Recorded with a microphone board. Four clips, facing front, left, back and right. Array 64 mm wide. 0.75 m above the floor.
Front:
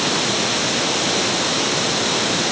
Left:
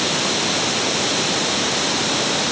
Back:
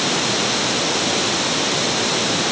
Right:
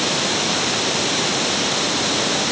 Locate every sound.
Only background noise.